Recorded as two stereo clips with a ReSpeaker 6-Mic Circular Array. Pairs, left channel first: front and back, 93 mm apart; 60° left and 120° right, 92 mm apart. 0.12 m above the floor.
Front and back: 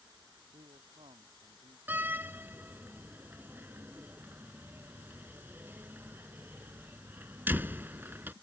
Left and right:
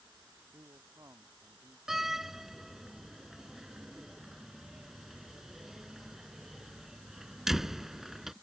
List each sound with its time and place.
0.5 s a man speaking: 175° right
1.9 s a door slam: 160° left